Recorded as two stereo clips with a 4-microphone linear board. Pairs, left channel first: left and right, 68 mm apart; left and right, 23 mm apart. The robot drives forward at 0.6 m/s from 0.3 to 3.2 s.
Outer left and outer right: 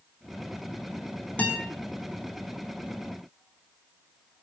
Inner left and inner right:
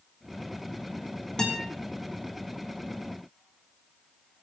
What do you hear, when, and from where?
1.4 s a guitar: 25° left (ahead or behind), 4.5 m; by 1.6 s 20° left (ahead or behind), 4.5 m